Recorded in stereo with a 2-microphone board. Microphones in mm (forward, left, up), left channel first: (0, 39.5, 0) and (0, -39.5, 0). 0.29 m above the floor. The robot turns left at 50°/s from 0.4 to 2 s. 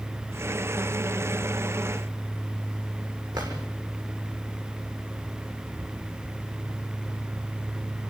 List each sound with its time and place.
3.3 s a drawer: 60° right (ahead or behind), 7 m